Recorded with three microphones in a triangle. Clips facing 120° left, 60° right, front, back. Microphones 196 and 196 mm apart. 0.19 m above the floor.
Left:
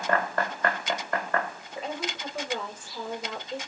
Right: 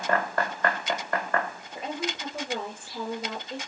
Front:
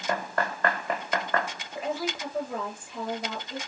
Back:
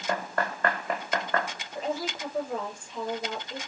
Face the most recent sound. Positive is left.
turn(degrees=-85)